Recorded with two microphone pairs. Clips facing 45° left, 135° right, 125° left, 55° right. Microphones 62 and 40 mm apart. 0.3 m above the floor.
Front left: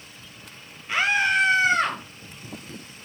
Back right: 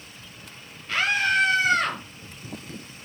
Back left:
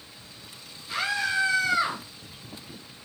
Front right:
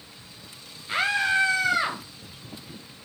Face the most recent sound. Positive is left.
turn(degrees=-25)